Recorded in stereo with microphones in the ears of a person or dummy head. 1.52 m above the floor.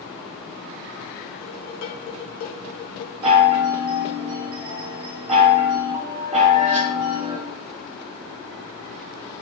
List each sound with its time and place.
1.4 s dishes clattering: 45° left (ahead or behind), 1.3 m
3.2 s a chime: 35° right (ahead or behind), 3 m